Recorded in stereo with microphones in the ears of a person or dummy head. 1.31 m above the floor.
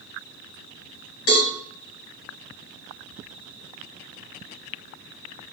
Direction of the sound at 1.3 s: 65° left (ahead or behind).